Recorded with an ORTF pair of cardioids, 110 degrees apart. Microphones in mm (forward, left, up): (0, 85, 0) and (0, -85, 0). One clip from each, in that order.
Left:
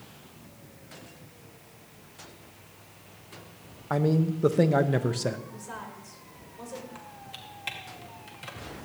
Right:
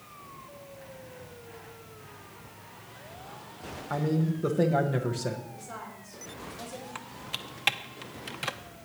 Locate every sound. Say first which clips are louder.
3.9 s a man speaking: left 4 dB; 30° left, 1.1 m
5.5 s a woman speaking: left 1 dB; 45° left, 4 m
7.0 s typing on a keyboard: right 5 dB; 50° right, 0.8 m